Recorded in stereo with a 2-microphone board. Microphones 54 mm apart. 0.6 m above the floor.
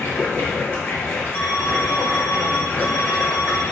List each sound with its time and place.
0.0 s running water: 45° left (ahead or behind), 0.9 m
1.3 s an alarm: 35° left (ahead or behind), 1.1 m